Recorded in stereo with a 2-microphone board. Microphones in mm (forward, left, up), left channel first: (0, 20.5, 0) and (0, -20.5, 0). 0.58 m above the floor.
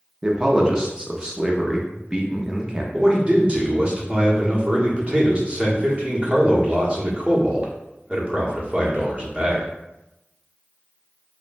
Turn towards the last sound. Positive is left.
turn(degrees=-30)  # may be behind; listen again after turning